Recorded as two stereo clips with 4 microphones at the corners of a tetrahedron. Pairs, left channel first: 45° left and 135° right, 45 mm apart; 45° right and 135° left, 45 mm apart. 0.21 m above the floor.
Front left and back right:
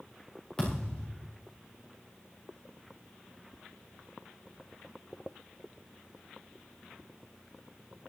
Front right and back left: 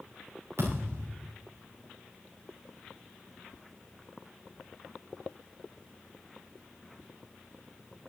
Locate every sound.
0.6 s a thud: 115° left, 5.5 m